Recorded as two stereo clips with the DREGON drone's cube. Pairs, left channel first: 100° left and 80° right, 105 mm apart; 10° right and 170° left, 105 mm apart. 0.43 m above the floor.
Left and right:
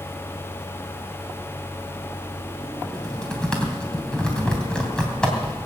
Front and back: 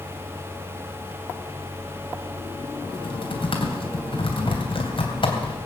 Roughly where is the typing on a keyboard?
Ahead.